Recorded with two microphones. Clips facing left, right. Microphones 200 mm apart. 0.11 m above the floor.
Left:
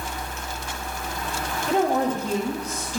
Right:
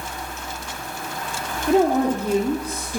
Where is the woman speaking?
55° right (ahead or behind), 2 m.